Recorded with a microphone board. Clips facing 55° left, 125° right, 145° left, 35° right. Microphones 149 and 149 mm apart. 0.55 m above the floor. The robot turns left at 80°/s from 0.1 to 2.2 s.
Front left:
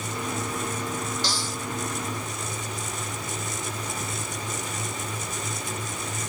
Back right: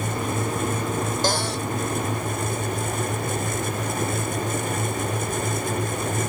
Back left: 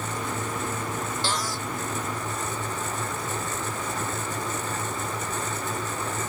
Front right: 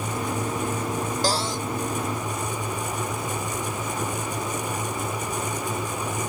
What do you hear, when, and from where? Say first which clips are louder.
1.2 s a cupboard door: back right 8 dB, front right 5 dB; 85° right; by 1.7 s 115° right